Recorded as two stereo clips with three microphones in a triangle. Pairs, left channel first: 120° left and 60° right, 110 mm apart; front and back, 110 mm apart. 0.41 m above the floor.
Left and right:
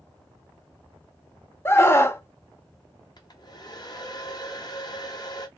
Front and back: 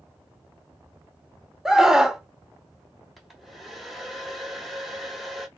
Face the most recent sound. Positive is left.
turn(degrees=90)